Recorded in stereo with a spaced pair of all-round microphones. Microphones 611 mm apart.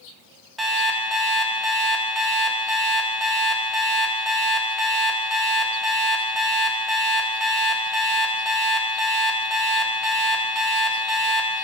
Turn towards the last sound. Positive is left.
turn(degrees=0)  # may be behind; listen again after turning